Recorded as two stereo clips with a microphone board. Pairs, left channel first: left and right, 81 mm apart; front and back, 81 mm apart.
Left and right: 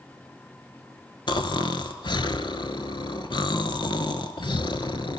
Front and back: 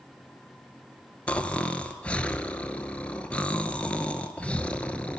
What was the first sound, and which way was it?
Snoring, 75° left.